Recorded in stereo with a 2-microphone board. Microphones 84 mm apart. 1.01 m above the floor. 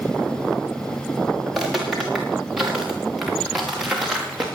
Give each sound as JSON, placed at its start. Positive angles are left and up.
{"t": 1.5, "sound": "footsteps", "side_deg": 0, "distance_m": 6.0}